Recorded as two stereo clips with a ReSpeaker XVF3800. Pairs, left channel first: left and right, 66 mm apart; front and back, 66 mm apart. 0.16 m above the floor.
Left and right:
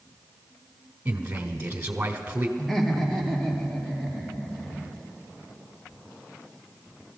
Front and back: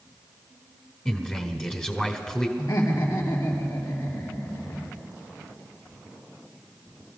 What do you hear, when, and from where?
1.1 s a man speaking: 60° right, 1.1 m
2.6 s laughter: 5° left, 3 m